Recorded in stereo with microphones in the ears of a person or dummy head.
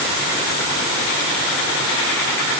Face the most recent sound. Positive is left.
No sound to turn to.